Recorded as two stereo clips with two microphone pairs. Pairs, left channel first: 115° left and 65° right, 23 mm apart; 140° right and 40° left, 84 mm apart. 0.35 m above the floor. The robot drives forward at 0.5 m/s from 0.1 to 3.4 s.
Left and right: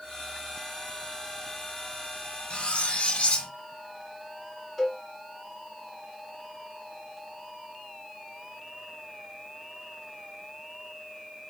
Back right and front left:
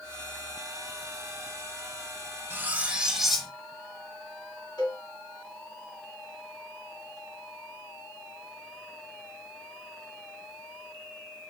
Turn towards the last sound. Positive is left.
turn(degrees=-165)